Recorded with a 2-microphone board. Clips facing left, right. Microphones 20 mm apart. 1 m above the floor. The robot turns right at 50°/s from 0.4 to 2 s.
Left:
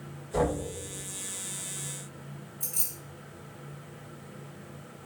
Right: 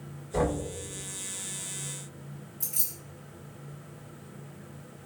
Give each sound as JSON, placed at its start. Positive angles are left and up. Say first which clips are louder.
{"t": 0.3, "sound": "knocking", "louder": "even", "side_deg": 20, "distance_m": 1.7}
{"t": 2.6, "sound": "keys jangling", "louder": "even", "side_deg": -70, "distance_m": 2.0}